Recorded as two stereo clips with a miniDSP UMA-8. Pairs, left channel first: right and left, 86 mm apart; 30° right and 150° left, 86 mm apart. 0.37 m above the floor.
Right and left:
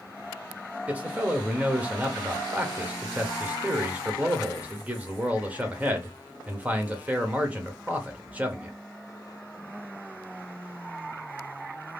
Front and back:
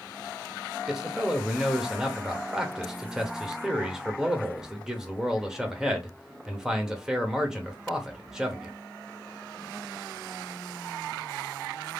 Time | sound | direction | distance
0.9 | a man speaking | 85° left | 0.8 m